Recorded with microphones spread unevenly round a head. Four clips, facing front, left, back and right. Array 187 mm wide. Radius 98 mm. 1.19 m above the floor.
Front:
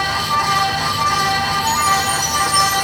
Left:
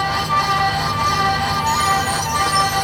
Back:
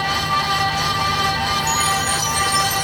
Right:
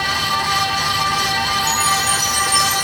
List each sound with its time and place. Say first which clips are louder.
1.6 s a chime: left 2 dB, front 4 dB; 170° right, 10 m